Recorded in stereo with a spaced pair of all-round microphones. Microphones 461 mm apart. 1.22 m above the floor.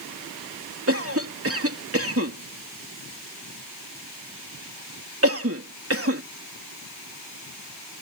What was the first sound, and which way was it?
A cough, 30° right (ahead or behind).